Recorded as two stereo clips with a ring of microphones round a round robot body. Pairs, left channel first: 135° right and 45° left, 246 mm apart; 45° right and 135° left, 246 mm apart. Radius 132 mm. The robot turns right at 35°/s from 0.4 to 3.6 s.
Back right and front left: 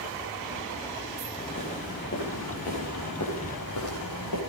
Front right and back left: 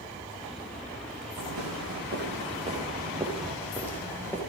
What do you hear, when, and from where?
1.4 s footsteps: 150° left, 6 m; by 4.4 s 130° right, 8.5 m